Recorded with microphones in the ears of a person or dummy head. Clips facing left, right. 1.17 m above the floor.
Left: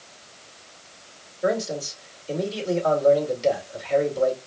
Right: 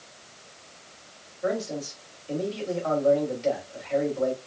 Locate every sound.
1.4 s a man speaking: 35° left (ahead or behind), 2 m